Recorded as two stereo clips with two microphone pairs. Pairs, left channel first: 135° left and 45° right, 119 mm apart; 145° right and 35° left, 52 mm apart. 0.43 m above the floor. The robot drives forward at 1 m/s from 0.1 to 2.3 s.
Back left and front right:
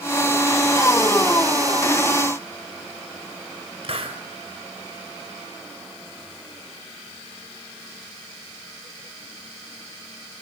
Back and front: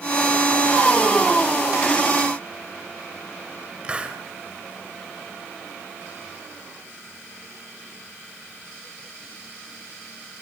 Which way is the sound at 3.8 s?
30° right.